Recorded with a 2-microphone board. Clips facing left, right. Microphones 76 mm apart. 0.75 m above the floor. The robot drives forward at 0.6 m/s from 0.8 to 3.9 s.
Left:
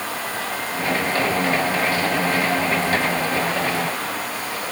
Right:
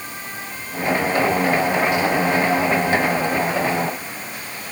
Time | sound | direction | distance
0.0 | running water | 90° left | ?